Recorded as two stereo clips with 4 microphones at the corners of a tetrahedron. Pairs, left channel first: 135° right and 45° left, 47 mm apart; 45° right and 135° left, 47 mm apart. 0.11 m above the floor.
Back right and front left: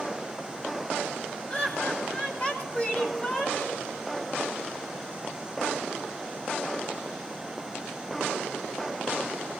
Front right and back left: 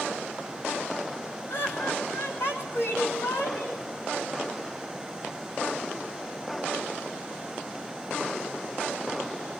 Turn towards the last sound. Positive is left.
turn(degrees=-80)